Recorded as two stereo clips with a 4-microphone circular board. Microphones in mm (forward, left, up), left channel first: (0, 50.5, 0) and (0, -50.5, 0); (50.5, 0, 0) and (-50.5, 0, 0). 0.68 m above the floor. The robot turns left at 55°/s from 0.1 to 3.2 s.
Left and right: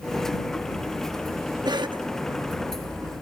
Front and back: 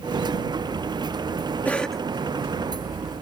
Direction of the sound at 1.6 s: 70° right.